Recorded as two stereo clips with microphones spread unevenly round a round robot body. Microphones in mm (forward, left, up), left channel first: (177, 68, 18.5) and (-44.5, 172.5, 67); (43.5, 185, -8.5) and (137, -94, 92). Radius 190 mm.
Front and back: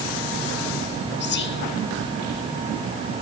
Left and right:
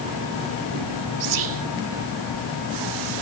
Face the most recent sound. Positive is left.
turn(degrees=-55)